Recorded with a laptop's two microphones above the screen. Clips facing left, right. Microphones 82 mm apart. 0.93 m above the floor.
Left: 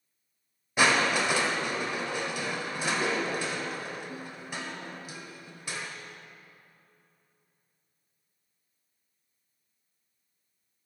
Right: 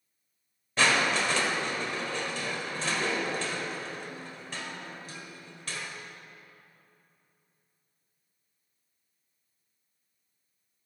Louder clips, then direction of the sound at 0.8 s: Left 1 dB; 10° left (ahead or behind).